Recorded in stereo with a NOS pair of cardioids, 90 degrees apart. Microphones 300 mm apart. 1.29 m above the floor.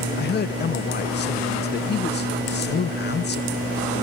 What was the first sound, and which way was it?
A man speaking, 35° left.